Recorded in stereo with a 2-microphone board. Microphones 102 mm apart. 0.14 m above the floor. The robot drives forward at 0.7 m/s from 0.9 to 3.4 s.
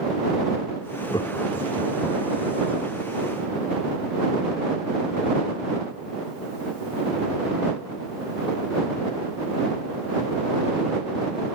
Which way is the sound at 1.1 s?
45° left (ahead or behind).